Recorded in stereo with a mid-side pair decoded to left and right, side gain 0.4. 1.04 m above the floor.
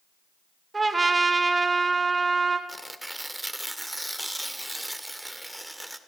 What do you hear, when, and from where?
0.7 s a trumpet: 25° right, 2.5 m
2.7 s tearing paper: 5° right, 1.9 m